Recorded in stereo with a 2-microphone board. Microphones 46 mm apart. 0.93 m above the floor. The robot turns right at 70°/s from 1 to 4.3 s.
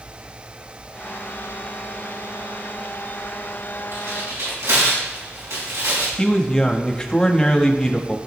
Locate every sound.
3.9 s tearing paper: 65° right (ahead or behind), 5.5 m; by 6.1 s 90° right, 5.5 m
6.2 s a man speaking: 20° left (ahead or behind), 1.2 m